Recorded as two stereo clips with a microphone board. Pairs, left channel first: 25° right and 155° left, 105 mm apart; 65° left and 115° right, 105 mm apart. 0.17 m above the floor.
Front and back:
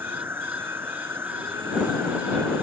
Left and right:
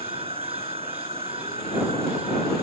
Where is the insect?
135° right.